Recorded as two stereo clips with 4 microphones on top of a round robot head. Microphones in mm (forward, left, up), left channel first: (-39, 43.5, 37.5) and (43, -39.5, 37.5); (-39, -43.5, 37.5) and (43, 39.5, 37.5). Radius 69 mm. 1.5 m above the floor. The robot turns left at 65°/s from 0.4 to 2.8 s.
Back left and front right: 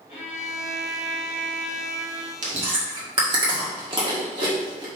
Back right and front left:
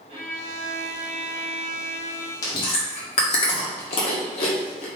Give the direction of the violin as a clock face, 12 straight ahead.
9 o'clock.